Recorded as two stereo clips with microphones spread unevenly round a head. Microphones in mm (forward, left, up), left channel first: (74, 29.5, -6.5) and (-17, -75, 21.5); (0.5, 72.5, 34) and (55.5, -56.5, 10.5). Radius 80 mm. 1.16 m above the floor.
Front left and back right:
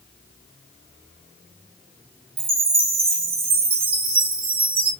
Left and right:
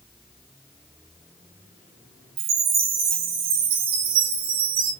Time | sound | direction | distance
2.4 | a chime | 85° right | 3.5 m